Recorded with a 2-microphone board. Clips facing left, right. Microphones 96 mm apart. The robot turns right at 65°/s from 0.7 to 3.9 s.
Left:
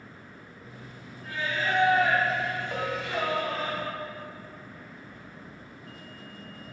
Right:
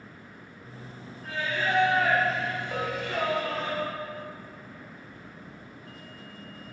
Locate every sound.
1.2 s singing: 115° right, 3 m; by 3.7 s 45° left, 3 m
2.7 s a bell: straight ahead, 1.3 m; by 3.2 s 35° left, 1.3 m